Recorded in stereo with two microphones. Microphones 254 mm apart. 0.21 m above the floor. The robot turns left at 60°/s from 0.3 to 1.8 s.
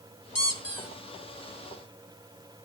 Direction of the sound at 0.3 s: 90° left.